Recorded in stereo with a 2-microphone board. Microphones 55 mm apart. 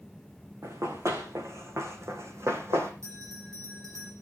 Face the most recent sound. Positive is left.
turn(degrees=-85)